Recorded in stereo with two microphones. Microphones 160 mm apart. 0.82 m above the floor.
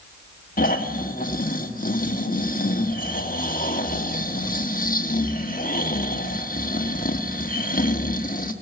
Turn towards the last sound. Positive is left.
turn(degrees=60)  # may be behind; listen again after turning